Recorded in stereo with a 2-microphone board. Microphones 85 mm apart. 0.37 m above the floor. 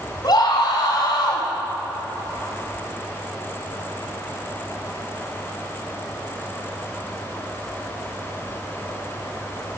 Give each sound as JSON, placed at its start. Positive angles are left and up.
{"t": 0.2, "sound": "a scream", "side_deg": 60, "distance_m": 3.0}